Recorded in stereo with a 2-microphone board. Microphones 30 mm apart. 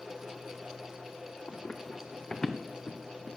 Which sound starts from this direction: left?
Running footsteps, at 1.5 s.